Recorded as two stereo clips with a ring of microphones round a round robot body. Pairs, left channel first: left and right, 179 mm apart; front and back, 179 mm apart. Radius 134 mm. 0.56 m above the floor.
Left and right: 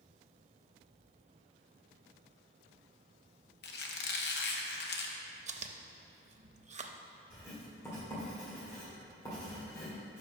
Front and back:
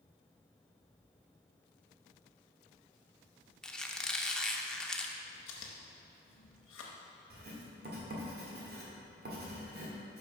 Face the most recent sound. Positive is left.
turn(degrees=165)